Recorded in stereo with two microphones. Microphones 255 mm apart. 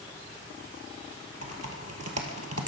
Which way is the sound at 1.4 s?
80° right.